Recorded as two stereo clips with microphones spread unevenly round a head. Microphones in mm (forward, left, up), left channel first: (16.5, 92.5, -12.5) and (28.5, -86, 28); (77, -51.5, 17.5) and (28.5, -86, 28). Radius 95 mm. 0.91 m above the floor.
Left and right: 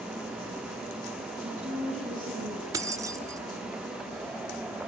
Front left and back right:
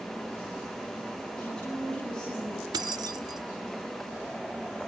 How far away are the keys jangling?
About 1.4 m.